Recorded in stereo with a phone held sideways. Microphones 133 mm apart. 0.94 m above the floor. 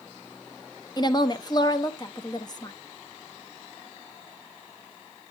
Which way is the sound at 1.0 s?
30° left (ahead or behind).